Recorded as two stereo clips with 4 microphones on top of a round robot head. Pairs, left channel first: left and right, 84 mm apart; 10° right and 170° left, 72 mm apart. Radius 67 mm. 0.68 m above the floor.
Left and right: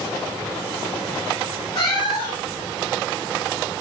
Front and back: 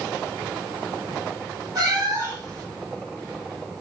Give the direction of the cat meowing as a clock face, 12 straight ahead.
8 o'clock.